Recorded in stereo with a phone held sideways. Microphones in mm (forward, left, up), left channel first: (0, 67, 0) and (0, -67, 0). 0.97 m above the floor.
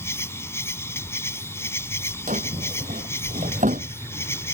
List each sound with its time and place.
0.0 s an insect: 20° left (ahead or behind)
2.3 s a drawer: 85° right